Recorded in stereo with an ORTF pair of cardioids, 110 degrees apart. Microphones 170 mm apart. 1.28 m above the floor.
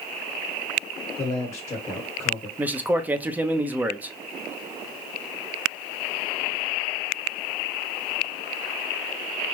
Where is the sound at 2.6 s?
10° right, 0.7 m.